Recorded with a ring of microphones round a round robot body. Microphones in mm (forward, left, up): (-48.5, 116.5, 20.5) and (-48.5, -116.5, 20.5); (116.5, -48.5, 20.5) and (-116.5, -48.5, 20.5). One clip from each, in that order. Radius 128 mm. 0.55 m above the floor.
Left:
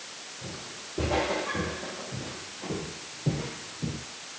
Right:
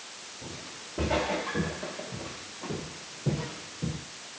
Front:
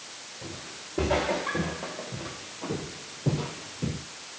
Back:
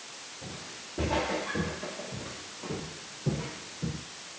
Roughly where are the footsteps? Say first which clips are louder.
Left 1 dB, front 3 dB; ahead right.